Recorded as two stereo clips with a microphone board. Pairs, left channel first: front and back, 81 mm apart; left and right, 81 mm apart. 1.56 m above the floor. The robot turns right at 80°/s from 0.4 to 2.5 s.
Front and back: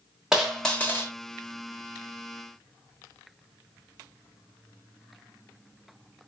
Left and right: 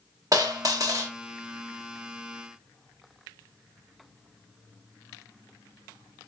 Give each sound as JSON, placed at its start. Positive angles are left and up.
{"t": 0.3, "sound": "a dropped coin", "azimuth_deg": -100, "distance_m": 1.4}